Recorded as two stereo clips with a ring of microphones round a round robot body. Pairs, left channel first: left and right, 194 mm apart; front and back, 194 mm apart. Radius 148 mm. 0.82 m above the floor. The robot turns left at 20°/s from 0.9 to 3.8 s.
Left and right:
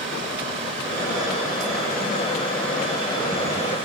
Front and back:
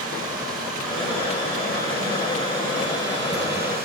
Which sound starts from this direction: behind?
Running water, at 0.0 s.